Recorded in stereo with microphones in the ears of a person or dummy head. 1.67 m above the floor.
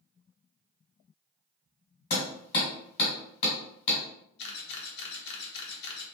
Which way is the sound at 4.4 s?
55° left (ahead or behind).